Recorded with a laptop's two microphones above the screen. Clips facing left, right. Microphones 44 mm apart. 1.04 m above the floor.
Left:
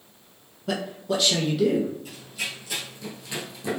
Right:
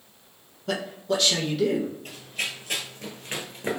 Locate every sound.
0.7 s a man speaking: 5° left (ahead or behind), 1.2 m
2.0 s running footsteps: 45° right (ahead or behind), 1.6 m; by 3.8 s 35° right (ahead or behind), 1.2 m